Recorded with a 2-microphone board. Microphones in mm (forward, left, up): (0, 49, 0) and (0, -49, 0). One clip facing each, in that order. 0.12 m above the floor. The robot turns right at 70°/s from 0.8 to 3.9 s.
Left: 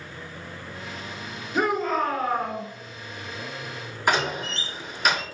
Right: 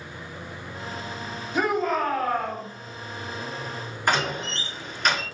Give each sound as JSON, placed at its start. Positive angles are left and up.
{"t": 1.5, "sound": "a shout", "azimuth_deg": 100, "distance_m": 1.8}
{"t": 4.1, "sound": "a door slam", "side_deg": 5, "distance_m": 1.3}